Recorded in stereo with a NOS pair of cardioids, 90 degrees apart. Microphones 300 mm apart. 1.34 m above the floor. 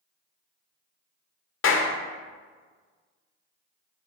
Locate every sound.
1.6 s a clap: 45° left, 0.8 m